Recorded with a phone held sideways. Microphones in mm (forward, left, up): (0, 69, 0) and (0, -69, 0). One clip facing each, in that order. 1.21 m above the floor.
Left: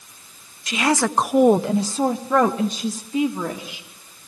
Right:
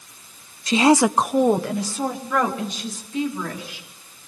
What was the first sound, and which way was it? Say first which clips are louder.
A woman speaking: right 5 dB; 30° right (ahead or behind).